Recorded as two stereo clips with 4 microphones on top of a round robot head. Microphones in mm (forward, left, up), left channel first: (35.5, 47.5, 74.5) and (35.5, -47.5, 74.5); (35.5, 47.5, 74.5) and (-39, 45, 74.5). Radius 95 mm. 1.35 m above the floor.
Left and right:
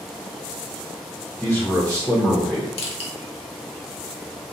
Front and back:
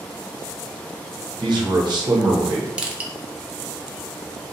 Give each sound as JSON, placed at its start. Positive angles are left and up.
{"t": 1.4, "sound": "a man speaking", "azimuth_deg": 160, "distance_m": 0.8}
{"t": 2.8, "sound": "crushing", "azimuth_deg": 105, "distance_m": 0.6}